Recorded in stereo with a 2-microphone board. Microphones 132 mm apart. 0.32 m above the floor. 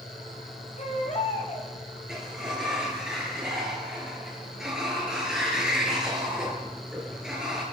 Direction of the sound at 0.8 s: 55° left (ahead or behind).